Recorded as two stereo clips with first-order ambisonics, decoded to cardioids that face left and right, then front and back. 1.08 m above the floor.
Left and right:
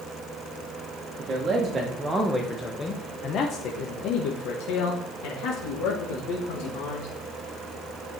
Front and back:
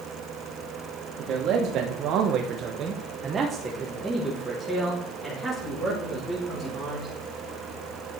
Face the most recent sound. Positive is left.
turn(degrees=75)